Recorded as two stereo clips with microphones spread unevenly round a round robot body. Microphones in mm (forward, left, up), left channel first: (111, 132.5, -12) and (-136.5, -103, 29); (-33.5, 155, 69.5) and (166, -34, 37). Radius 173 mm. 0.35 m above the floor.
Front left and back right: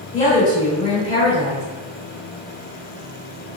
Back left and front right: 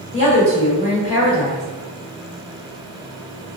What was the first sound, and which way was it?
A woman speaking, 80° left.